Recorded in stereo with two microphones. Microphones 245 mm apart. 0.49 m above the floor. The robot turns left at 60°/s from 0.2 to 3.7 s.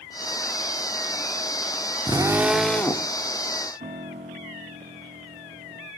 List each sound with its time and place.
2.1 s a drill: 145° right, 1.0 m; by 3.1 s 150° left, 1.0 m
3.8 s a piano: 35° right (ahead or behind), 4 m